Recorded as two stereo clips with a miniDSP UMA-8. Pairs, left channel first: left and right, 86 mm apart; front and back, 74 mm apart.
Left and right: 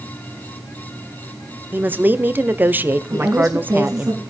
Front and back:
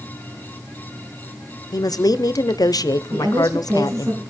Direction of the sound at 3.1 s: 135° right.